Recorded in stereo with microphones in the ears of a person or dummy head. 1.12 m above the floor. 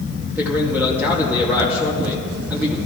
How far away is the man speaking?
About 2 m.